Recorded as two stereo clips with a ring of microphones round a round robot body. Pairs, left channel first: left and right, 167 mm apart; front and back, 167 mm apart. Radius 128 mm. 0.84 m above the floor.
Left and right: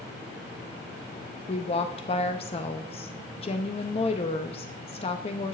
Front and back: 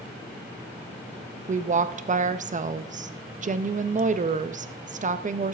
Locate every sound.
1.5 s a woman speaking: 145° left, 0.6 m